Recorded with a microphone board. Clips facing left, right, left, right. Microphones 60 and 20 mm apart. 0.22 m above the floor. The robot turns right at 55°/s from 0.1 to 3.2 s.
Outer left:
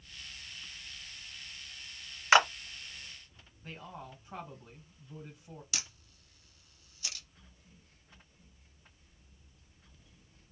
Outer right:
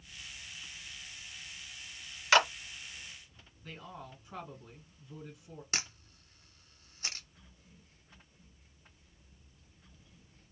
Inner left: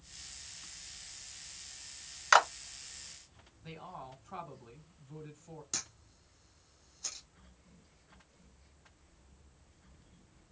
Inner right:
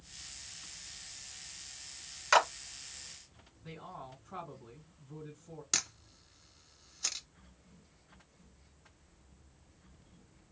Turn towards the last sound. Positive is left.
turn(degrees=-40)  # may be behind; listen again after turning